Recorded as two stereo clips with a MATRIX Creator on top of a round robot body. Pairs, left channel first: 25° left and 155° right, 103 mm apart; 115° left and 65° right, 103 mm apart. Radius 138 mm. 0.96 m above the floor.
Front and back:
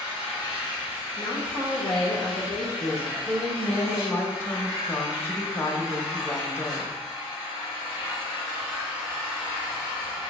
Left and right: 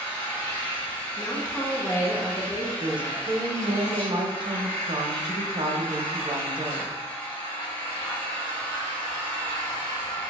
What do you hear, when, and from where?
0.0 s an engine running: 70° left, 1.3 m
1.2 s a woman speaking: 60° left, 1.1 m
2.8 s a woman speaking: 40° right, 1.1 m